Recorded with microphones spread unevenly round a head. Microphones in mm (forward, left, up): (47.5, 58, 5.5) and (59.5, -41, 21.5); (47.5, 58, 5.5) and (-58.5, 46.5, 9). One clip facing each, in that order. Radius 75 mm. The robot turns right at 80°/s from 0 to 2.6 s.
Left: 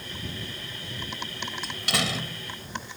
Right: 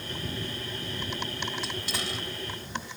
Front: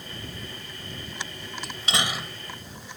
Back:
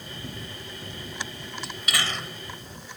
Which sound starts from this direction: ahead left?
A door slam, at 1.6 s.